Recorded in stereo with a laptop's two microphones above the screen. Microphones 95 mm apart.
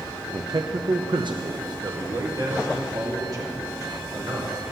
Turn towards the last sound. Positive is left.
turn(degrees=-40)  # may be behind; listen again after turning